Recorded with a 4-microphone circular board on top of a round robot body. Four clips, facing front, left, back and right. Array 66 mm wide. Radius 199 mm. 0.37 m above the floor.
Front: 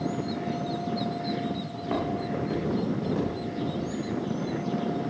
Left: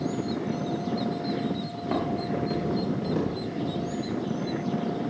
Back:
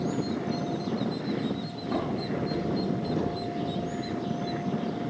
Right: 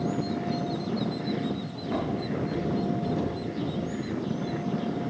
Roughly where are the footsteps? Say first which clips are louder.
Left 2 dB, front 3 dB; ahead left.